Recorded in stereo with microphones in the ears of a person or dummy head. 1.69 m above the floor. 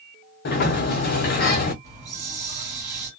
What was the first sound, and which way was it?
A sliding door, 55° left (ahead or behind).